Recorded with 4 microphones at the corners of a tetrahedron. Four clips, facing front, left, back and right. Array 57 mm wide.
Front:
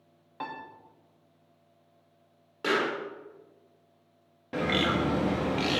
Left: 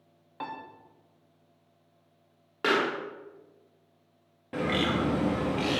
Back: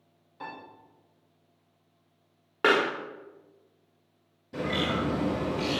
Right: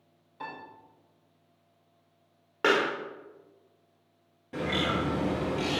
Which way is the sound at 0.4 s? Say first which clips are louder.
Left 3 dB, front 3 dB; 45° left.